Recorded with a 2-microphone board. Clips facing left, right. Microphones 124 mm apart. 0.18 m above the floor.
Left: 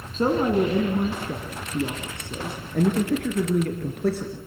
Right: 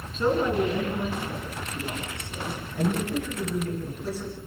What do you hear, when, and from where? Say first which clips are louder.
0.1 s a man speaking: left 3 dB; 40° left (ahead or behind), 2.5 m; by 4.4 s 65° left (ahead or behind), 3.5 m